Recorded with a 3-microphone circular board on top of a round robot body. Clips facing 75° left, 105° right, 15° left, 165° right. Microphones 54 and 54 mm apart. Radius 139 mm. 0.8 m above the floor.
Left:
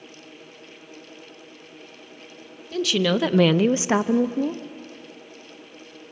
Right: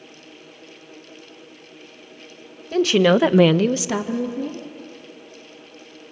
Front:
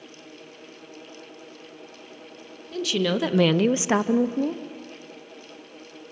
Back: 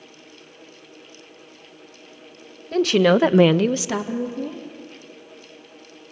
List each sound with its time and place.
2.7 s a woman speaking: 145° right, 1.4 m; by 4.6 s 45° left, 1.6 m